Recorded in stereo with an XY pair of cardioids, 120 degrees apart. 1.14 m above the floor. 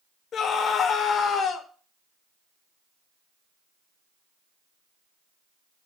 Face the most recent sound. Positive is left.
turn(degrees=55)